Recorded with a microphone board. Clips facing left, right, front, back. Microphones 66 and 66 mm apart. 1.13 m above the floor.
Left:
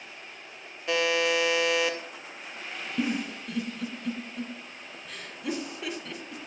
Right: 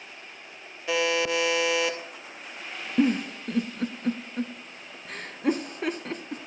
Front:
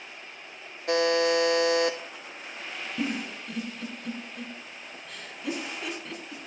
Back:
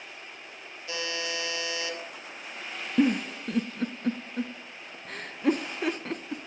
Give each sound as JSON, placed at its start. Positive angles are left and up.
{"t": 0.9, "sound": "a buzzer", "azimuth_deg": 0, "distance_m": 0.9}
{"t": 3.0, "sound": "a giggle", "azimuth_deg": -135, "distance_m": 0.5}